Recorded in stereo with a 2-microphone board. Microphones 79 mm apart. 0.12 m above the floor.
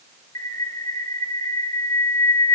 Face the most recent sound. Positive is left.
turn(degrees=50)  # may be behind; listen again after turning